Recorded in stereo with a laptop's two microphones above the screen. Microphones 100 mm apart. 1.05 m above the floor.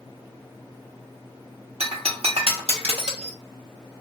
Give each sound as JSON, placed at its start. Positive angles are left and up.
{"t": 1.8, "sound": "breaking glass", "side_deg": -80, "distance_m": 0.9}